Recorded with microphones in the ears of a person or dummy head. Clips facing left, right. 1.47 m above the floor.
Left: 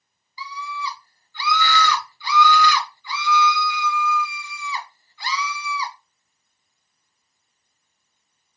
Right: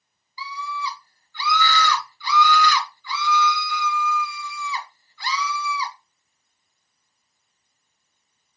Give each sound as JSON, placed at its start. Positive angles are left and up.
{"t": 0.4, "sound": "a scream", "side_deg": 25, "distance_m": 1.9}